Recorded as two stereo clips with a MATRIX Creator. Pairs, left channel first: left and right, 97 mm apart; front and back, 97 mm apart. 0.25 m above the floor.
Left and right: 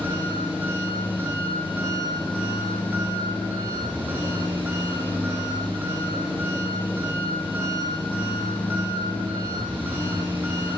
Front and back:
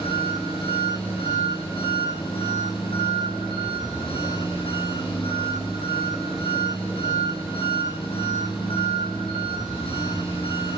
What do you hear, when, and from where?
0.0 s an engine running: 20° right, 9 m